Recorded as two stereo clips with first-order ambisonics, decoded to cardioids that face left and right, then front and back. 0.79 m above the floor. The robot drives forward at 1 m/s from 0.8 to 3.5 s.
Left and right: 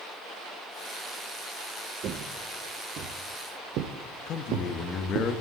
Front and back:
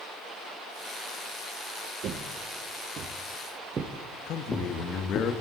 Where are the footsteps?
140° right, 1.2 m; by 5.3 s 45° right, 1.7 m.